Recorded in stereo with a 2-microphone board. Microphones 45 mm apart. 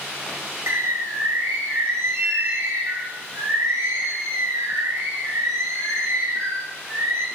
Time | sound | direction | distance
0.7 | a bird | 80° right | 4 m